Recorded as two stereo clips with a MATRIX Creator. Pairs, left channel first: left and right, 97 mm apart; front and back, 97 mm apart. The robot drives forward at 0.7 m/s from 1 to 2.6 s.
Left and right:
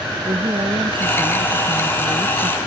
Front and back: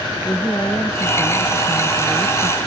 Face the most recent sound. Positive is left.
turn(degrees=-65)